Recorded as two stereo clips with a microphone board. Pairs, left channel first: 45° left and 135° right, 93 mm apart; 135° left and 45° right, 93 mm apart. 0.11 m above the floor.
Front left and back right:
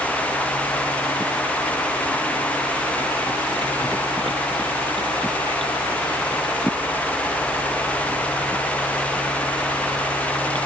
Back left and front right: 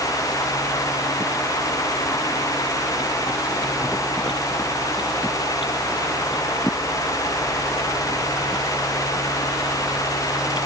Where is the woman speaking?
No woman speaking in this recording.